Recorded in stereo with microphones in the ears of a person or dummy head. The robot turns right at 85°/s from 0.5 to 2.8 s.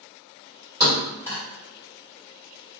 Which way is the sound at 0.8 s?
20° right (ahead or behind).